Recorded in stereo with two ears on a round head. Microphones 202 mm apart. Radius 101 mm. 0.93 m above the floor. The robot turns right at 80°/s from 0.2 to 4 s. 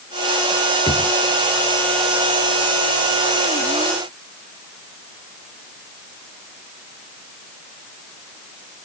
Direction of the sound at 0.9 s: 20° left (ahead or behind).